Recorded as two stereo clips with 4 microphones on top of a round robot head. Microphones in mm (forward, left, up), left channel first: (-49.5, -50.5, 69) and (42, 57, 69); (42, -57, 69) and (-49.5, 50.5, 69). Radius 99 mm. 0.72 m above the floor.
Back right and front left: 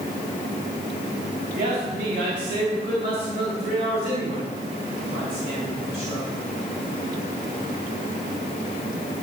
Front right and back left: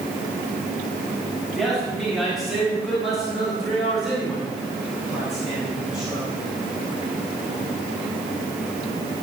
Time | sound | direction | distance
1.5 | a man speaking | 40° left | 4 m